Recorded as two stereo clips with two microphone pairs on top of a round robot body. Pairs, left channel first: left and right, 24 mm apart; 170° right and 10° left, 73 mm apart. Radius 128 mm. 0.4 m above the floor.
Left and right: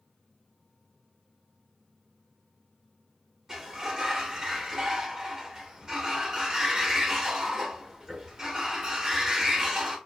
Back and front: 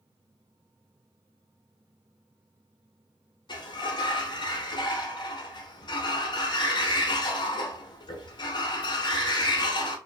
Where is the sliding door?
160° right, 0.8 m.